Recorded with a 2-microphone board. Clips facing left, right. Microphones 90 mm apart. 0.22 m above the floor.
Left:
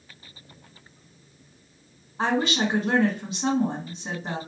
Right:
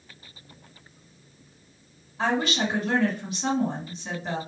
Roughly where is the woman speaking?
Left.